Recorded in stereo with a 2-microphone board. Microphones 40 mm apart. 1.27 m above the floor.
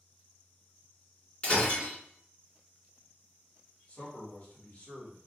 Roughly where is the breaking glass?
Left.